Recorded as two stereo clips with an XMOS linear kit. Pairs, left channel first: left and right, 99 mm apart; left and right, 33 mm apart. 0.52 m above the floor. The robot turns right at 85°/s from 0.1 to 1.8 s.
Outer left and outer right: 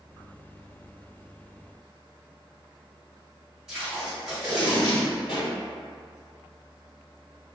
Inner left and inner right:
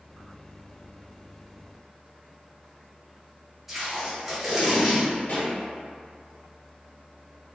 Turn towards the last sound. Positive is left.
turn(degrees=60)  # may be behind; listen again after turning